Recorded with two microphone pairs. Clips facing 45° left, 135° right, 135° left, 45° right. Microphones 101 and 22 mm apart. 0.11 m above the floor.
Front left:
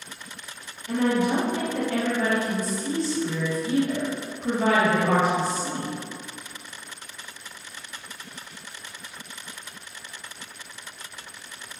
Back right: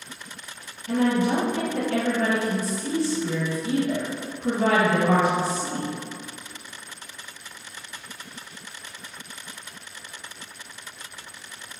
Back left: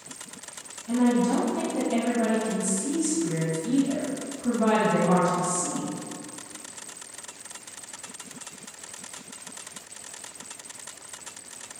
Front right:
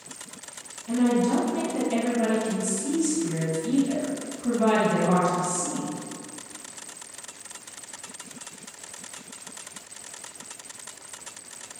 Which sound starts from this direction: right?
A woman speaking, at 0.9 s.